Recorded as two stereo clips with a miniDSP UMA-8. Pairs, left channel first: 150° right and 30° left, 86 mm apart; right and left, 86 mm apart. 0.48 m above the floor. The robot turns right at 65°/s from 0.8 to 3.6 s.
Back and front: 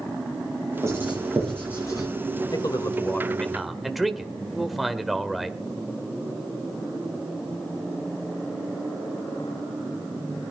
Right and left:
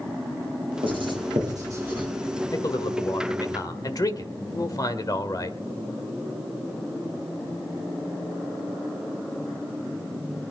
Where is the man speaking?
130° right, 1.5 m; by 5.6 s 60° right, 1.5 m.